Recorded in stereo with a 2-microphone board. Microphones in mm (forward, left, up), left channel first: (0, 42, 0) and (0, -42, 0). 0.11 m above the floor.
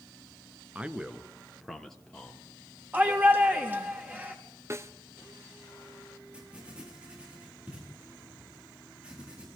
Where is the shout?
20° right (ahead or behind), 4 m.